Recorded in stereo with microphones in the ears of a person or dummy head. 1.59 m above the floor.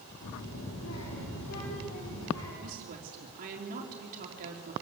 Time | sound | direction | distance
0.2 | a child speaking | 80° left | 3 m
2.6 | a woman speaking | 50° right (ahead or behind) | 3.5 m